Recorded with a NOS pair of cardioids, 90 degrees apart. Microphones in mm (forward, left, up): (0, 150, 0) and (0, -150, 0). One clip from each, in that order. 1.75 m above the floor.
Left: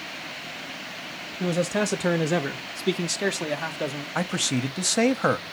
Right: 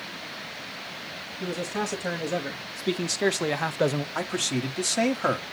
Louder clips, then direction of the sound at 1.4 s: Left 5 dB; 60° left.